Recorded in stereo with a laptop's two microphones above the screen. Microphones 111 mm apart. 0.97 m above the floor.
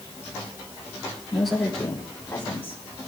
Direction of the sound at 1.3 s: 5° right (ahead or behind).